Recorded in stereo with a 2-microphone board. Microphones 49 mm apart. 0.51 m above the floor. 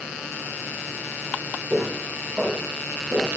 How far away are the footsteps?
About 3 m.